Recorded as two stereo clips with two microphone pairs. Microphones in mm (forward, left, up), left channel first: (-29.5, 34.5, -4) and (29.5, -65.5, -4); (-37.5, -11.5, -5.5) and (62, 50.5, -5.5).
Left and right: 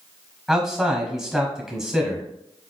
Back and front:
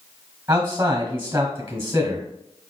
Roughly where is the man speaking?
Ahead left.